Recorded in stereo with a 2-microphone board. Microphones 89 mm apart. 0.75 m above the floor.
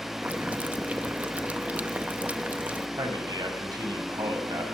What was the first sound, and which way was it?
Boiling, 15° right (ahead or behind).